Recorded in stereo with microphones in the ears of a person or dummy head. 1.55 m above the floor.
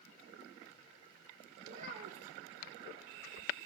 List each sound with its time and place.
1.6 s a child speaking: 35° right (ahead or behind), 0.8 m